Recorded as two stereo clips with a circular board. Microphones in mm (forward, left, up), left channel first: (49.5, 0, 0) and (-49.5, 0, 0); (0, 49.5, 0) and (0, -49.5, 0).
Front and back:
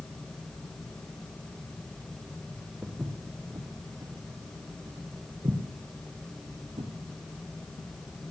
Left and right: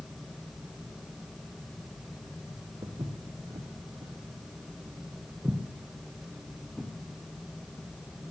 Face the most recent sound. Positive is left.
turn(degrees=180)